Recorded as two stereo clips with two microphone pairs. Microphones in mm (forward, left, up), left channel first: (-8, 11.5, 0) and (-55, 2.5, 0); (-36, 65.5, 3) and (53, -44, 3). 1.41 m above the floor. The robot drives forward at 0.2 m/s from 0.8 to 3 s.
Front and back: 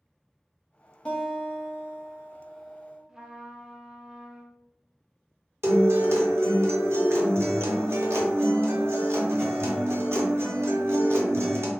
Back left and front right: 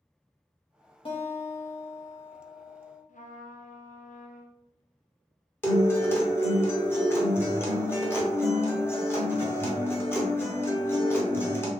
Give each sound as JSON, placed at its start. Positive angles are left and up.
{"t": 1.1, "sound": "a guitar", "azimuth_deg": 85, "distance_m": 0.7}
{"t": 3.1, "sound": "a trumpet", "azimuth_deg": 115, "distance_m": 0.5}
{"t": 5.6, "sound": "a guitar", "azimuth_deg": -160, "distance_m": 0.8}